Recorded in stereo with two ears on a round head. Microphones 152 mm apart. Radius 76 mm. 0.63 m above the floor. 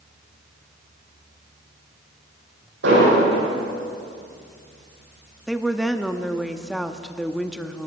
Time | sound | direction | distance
2.8 | an explosion | 80° right | 10 m
5.5 | a woman speaking | centre (ahead or behind) | 0.9 m